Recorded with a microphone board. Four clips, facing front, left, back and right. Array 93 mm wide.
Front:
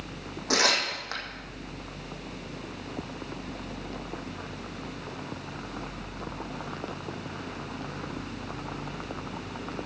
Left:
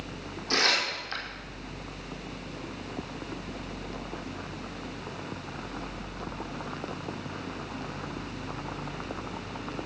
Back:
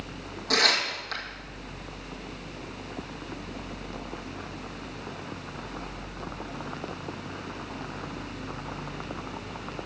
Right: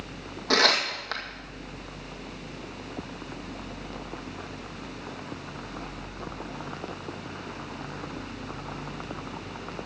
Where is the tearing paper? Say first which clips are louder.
Right 4 dB, even; 70° right, 2.5 m.